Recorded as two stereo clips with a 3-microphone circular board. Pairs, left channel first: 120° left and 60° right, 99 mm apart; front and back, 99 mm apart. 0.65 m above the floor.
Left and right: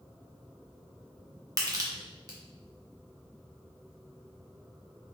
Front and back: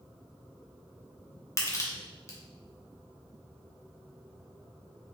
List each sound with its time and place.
1.6 s crushing: 40° right, 0.8 m